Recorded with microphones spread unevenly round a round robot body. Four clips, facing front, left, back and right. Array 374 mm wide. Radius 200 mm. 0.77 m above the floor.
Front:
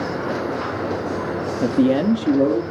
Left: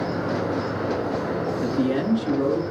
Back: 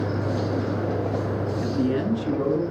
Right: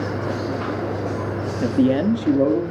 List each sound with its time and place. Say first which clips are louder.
1.6 s a man speaking: right 7 dB, front 8 dB; 35° right, 1.2 m; by 2.6 s 55° right, 2 m